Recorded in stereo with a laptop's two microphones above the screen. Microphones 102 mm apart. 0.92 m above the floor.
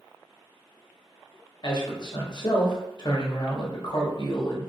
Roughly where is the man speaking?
Left.